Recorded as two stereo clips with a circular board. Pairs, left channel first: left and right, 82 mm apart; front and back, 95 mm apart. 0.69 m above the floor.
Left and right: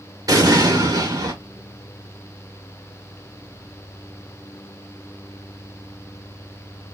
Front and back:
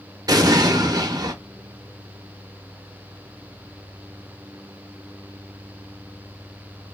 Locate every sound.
0.3 s an explosion: 130° right, 0.7 m